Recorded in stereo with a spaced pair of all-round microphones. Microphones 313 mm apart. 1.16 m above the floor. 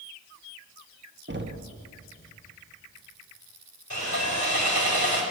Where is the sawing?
65° left (ahead or behind), 4.5 m.